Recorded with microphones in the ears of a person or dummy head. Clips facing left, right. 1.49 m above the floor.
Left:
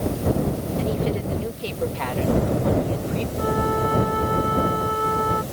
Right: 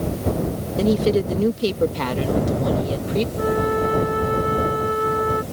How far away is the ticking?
I don't hear ticking.